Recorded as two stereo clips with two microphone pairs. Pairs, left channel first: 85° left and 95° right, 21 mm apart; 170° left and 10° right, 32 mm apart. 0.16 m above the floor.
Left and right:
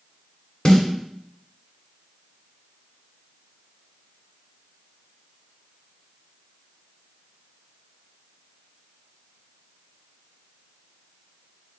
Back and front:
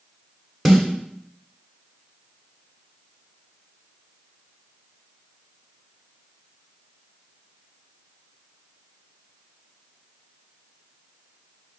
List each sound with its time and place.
0.7 s a snare drum: 75° left, 1.2 m